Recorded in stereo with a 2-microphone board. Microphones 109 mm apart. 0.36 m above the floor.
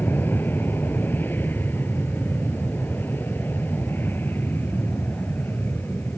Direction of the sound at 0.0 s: 20° left (ahead or behind).